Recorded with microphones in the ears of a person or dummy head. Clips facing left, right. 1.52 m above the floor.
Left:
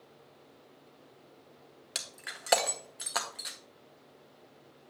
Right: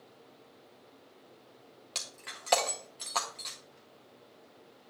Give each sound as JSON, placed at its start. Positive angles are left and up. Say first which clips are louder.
{"t": 1.9, "sound": "breaking glass", "louder": "left 1 dB", "side_deg": 10, "distance_m": 0.6}